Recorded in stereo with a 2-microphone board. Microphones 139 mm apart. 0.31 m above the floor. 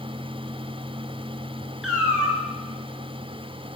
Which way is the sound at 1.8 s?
5° right (ahead or behind).